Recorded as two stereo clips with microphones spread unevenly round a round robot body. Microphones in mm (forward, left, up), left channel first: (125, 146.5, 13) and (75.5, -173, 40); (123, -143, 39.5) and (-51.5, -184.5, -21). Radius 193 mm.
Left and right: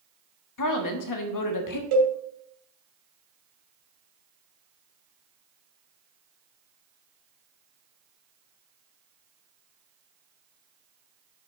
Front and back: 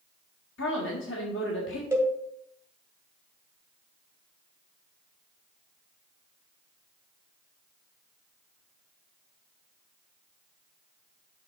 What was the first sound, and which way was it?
A woman speaking, 65° left.